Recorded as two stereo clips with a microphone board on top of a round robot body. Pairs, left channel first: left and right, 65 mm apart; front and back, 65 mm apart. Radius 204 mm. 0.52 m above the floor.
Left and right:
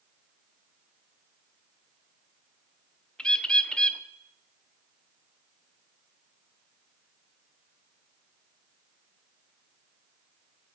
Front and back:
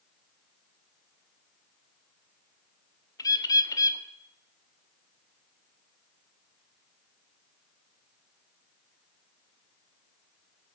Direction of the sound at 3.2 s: 15° left.